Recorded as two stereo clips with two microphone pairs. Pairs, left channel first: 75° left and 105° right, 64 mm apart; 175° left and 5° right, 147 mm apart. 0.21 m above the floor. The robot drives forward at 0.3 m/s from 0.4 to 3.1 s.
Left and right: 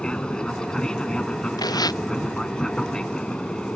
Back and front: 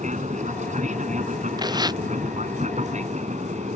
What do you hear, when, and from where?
0.0 s an aircraft: 5° right
1.6 s tearing paper: 55° left